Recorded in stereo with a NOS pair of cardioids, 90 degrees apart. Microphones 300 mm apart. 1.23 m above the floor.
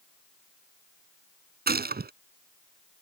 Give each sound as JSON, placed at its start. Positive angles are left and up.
{"t": 1.7, "sound": "a gunshot", "azimuth_deg": -30}